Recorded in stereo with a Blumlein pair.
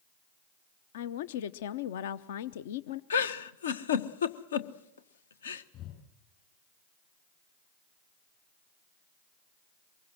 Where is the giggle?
65° left, 1.2 m.